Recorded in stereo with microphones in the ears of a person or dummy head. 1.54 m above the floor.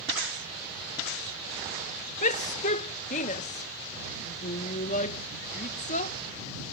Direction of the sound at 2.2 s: 45° left (ahead or behind).